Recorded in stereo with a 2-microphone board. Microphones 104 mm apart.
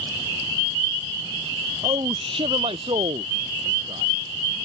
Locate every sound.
1.8 s a man speaking: 55° right (ahead or behind); by 4.5 s 70° right (ahead or behind)